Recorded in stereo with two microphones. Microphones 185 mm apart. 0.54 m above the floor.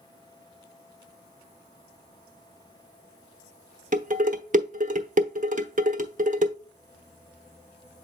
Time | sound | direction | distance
3.9 | dishes clattering | 45° right (ahead or behind) | 1.0 m